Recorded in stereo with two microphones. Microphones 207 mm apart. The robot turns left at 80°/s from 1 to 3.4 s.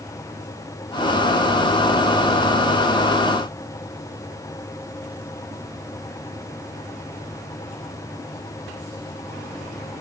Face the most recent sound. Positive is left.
No sound to turn to.